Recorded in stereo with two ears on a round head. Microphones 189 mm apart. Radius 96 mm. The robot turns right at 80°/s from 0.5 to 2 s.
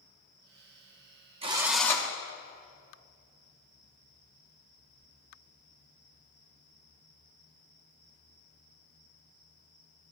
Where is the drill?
30° right, 1.0 m; by 2.1 s 20° left, 1.0 m.